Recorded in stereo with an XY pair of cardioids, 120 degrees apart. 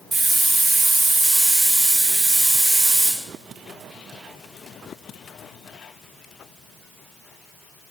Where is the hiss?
55° right, 3.5 m.